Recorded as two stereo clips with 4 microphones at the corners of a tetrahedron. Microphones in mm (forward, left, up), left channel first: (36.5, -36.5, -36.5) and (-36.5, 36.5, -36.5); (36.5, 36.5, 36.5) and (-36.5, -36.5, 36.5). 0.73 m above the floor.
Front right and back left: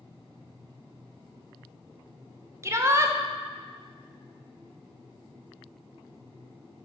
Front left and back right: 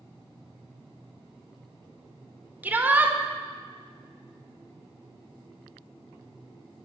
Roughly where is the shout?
Behind.